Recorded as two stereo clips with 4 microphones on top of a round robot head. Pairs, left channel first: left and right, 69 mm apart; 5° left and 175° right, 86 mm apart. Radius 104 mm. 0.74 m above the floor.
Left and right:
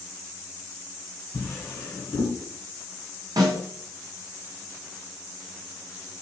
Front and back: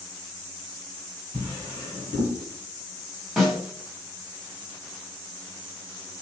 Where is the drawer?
135° left, 1.5 m.